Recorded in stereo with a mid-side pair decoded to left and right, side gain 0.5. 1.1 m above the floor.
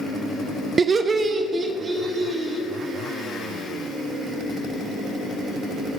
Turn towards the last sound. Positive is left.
turn(degrees=-40)